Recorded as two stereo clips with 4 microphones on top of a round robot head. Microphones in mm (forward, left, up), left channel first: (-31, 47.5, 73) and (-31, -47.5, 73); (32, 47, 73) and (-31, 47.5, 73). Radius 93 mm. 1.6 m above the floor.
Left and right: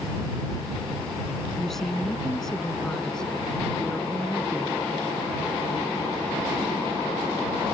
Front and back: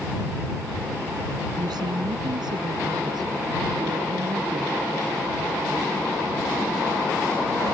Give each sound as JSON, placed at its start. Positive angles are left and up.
{"t": 1.6, "sound": "a woman speaking", "azimuth_deg": 175}